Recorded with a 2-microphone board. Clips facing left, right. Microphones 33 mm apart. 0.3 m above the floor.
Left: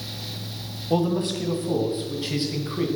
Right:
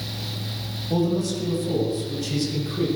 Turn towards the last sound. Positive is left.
turn(degrees=30)  # may be behind; listen again after turning